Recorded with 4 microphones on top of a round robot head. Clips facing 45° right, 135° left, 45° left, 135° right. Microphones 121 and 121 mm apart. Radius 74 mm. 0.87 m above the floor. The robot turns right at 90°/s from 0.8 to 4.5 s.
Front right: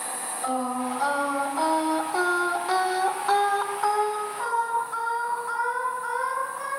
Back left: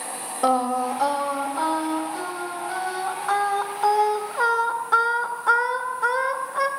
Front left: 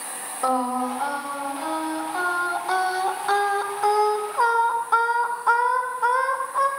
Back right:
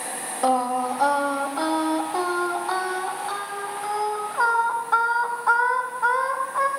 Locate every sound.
0.4 s singing: 155° left, 1.8 m; by 6.7 s 125° left, 1.8 m